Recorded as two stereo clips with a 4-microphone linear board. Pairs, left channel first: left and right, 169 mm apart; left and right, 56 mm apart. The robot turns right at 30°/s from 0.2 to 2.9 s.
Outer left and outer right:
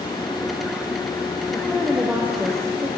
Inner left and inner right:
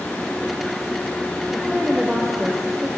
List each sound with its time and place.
1.5 s a woman speaking: 165° left, 4.5 m; by 2.9 s 150° right, 4.5 m